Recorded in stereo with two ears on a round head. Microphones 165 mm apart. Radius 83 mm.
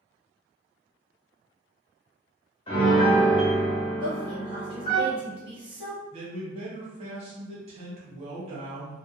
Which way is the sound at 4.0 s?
30° right (ahead or behind).